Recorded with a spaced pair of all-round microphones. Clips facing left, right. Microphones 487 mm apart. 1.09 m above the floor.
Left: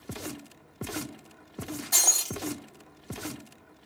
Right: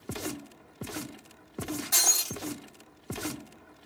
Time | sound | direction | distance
1.9 | breaking glass | 25° right (ahead or behind) | 1.7 m